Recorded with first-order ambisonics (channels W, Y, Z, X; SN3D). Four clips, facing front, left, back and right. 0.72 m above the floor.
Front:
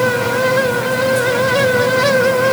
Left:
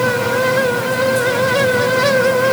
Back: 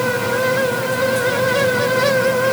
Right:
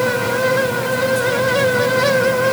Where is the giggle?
I don't hear a giggle.